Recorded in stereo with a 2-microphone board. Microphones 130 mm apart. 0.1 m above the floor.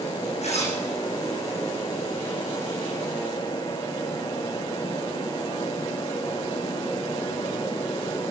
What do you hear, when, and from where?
0.4 s a zipper: 55° left (ahead or behind), 5 m